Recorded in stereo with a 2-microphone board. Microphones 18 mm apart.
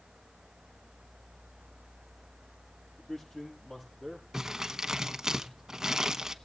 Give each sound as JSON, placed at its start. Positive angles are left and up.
{"t": 3.0, "sound": "a man speaking", "side_deg": 40, "distance_m": 7.0}
{"t": 4.3, "sound": "crumpling", "side_deg": -35, "distance_m": 0.9}